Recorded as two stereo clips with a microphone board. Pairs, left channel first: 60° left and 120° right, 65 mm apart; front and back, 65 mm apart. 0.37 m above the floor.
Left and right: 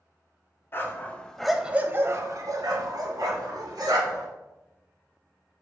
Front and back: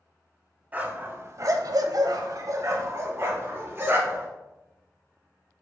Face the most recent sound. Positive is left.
turn(degrees=-120)